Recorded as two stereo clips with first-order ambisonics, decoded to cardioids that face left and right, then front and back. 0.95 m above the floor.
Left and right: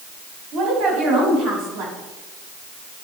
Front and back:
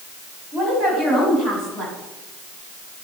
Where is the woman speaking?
120° right, 6.5 m.